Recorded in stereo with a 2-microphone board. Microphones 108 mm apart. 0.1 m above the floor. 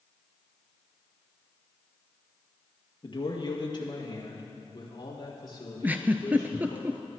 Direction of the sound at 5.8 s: 15° right (ahead or behind).